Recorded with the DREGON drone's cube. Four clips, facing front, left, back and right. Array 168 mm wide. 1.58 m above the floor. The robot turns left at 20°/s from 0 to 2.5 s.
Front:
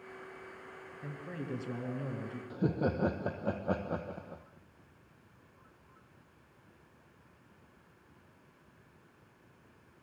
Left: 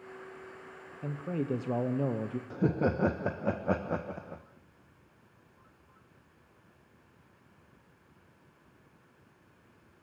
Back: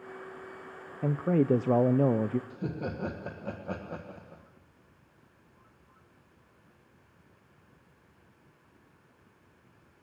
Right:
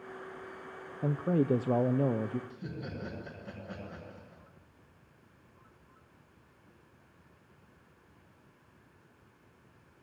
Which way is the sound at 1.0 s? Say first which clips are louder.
Right 6 dB, back 17 dB; 150° right.